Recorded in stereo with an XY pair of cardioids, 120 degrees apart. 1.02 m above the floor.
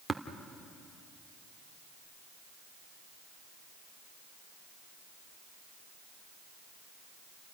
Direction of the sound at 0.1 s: 10° right.